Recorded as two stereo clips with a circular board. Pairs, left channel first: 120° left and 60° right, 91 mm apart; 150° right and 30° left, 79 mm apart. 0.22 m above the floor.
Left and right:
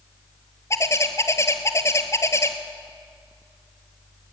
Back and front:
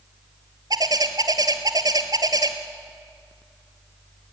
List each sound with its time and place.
0.7 s a bird: 60° left, 1.2 m